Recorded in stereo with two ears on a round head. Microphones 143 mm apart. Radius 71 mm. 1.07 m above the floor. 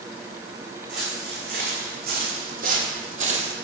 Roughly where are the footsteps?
Right.